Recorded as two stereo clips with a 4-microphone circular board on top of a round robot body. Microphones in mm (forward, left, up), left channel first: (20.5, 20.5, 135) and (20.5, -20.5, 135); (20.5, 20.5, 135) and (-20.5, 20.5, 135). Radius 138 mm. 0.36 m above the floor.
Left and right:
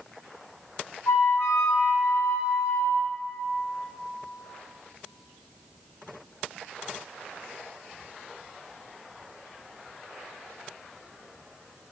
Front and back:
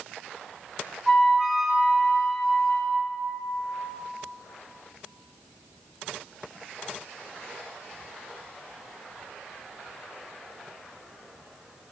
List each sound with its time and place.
1.1 s a flute: 90° left, 1.4 m